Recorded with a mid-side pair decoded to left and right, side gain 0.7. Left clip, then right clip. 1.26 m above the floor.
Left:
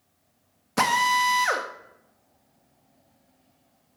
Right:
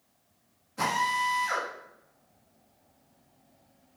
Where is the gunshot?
I don't hear a gunshot.